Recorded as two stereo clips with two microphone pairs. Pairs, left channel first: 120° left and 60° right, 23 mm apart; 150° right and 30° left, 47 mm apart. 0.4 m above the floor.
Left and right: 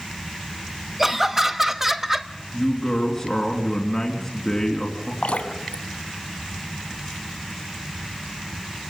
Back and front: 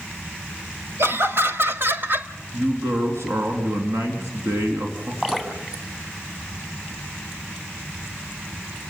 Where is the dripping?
105° left, 3.5 m.